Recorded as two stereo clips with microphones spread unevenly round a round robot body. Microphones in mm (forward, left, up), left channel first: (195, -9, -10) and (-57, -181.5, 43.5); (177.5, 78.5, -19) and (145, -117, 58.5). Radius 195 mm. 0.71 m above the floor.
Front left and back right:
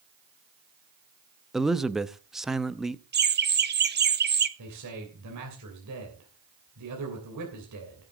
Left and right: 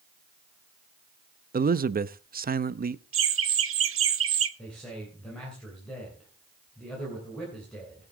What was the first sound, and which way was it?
A man speaking, 45° right.